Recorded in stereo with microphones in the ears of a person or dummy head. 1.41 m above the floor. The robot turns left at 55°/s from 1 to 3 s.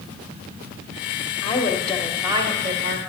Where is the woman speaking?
30° left, 1.1 m; by 3.0 s 55° right, 1.1 m.